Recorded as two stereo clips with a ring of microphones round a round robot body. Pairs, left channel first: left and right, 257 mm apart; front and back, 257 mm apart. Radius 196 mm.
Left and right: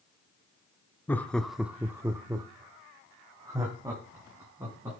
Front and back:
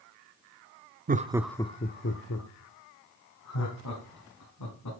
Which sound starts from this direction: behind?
Laughter, at 1.1 s.